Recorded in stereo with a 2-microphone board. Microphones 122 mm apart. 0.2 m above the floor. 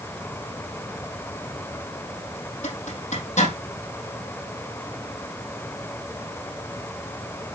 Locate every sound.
2.6 s a zipper: 80° left, 5 m